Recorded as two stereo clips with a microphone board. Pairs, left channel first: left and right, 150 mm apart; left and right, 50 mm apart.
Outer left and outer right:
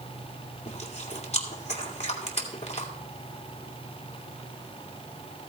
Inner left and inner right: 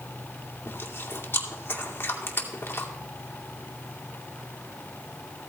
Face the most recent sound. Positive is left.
turn(degrees=45)  # may be behind; listen again after turning